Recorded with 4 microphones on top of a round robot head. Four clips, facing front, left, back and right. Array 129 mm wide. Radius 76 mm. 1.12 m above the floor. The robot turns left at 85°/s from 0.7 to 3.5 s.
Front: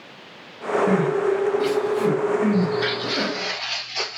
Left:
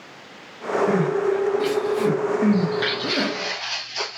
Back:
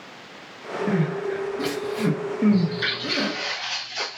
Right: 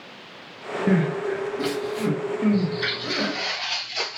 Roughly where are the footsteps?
Behind left.